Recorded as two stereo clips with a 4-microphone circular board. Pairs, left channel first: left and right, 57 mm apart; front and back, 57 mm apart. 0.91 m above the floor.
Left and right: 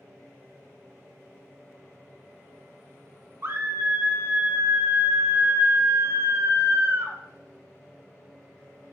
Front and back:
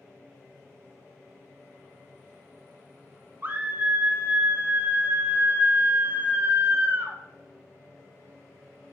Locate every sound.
3.4 s a scream: 130° right, 0.6 m